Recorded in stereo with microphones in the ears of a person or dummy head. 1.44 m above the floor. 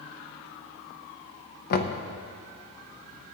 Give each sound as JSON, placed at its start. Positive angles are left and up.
{"t": 1.7, "sound": "knocking", "side_deg": 50, "distance_m": 0.9}